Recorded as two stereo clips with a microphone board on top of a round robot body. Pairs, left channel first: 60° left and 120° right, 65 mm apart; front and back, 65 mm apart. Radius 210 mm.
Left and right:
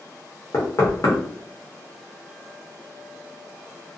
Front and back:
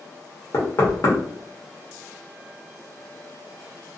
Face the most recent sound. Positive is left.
turn(degrees=30)